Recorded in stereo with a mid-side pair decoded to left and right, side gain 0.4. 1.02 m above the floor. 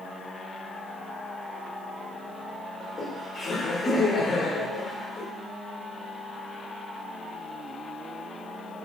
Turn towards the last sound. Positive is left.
turn(degrees=65)